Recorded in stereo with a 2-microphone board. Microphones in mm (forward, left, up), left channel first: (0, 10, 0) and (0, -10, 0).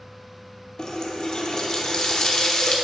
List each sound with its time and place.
0.8 s a running tap: 35° left (ahead or behind), 0.7 m